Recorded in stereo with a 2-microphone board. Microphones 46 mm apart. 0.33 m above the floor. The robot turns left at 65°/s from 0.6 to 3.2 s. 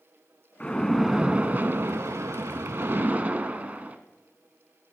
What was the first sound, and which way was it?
A splash, 25° left.